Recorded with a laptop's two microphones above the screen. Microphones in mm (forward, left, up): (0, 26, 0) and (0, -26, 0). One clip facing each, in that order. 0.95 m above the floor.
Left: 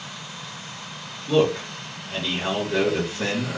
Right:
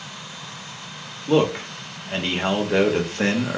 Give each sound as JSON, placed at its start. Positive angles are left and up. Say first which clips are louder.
{"t": 1.3, "sound": "a man speaking", "louder": "right 1 dB", "side_deg": -50, "distance_m": 0.9}